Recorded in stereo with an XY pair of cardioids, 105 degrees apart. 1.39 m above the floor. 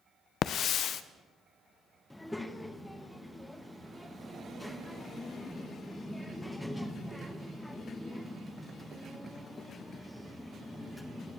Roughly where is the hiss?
Ahead left.